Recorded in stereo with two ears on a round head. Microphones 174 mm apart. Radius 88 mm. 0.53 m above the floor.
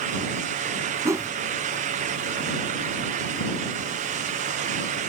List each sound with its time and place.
1.1 s a whoosh: 15° right (ahead or behind)